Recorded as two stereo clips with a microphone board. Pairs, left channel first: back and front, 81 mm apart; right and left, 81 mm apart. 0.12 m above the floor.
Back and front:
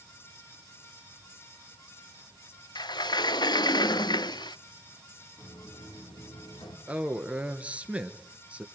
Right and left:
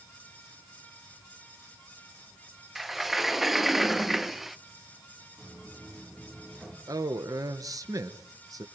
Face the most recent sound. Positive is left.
turn(degrees=70)